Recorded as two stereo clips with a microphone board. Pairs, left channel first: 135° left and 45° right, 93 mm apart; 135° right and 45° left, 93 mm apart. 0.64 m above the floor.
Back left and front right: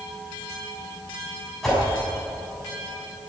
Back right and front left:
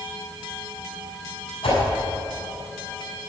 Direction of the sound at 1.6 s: 140° right.